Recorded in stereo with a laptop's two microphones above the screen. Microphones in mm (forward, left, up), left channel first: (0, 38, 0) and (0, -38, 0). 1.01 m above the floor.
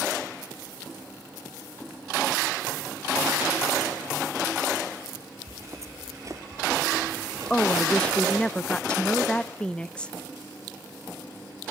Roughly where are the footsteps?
Right.